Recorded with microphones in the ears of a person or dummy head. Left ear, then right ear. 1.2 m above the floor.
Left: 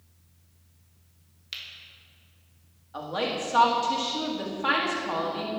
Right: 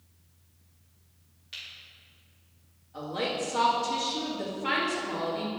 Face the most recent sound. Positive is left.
turn(degrees=50)  # may be behind; listen again after turning